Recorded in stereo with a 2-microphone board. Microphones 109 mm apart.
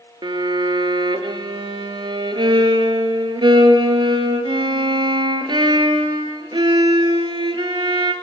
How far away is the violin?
About 0.6 m.